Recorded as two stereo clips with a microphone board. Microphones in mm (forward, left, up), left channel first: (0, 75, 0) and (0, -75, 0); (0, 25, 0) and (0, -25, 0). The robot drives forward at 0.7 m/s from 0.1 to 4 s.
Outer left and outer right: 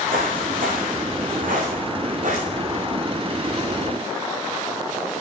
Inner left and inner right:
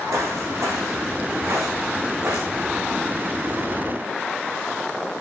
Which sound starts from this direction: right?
Footsteps, at 0.1 s.